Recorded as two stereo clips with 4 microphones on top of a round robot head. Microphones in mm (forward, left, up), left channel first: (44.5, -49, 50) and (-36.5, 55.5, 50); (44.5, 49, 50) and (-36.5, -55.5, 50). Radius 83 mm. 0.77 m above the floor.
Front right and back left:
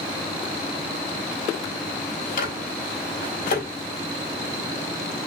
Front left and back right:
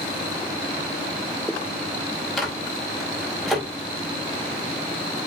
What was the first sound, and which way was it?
A microwave, 40° right.